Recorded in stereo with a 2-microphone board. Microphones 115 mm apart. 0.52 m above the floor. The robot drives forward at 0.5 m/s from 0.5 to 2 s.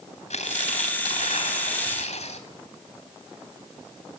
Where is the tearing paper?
75° left (ahead or behind), 3.5 m; by 2.5 s 70° left (ahead or behind), 3.5 m.